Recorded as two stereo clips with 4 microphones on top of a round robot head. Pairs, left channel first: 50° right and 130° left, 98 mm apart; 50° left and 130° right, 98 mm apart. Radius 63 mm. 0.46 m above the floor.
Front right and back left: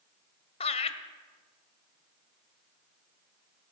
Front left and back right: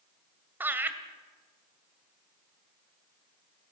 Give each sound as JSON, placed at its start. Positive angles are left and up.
{"t": 0.6, "sound": "laughter", "azimuth_deg": -60, "distance_m": 2.0}